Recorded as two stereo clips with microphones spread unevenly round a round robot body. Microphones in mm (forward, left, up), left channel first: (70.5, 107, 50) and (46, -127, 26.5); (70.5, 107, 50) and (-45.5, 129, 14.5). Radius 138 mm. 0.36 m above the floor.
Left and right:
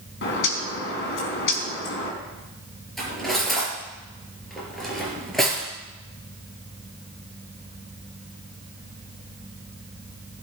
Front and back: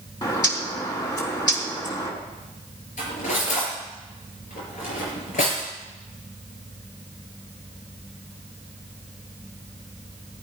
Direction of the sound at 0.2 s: 45° left.